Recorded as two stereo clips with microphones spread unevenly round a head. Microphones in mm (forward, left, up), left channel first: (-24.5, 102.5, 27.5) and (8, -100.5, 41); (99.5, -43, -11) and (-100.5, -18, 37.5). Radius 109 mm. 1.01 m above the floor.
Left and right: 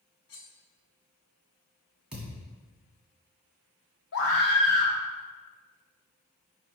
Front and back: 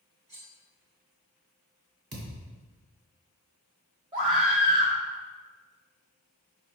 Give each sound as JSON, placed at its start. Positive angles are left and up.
{"t": 0.3, "sound": "cutlery clinking", "azimuth_deg": 115, "distance_m": 1.7}
{"t": 2.1, "sound": "a thud", "azimuth_deg": -165, "distance_m": 2.0}
{"t": 4.1, "sound": "a scream", "azimuth_deg": 105, "distance_m": 1.1}